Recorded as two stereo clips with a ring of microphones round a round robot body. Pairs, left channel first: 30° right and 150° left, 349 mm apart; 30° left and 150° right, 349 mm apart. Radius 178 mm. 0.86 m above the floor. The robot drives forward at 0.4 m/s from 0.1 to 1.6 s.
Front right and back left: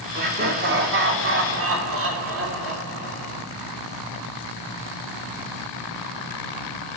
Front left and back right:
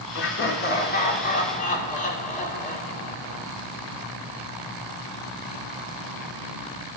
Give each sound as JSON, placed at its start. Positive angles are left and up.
{"t": 0.1, "sound": "laughter", "azimuth_deg": 85, "distance_m": 2.5}